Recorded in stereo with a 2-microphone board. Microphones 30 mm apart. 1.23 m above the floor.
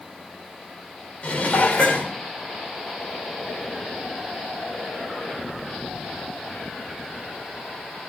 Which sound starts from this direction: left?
Dishes clattering, at 1.2 s.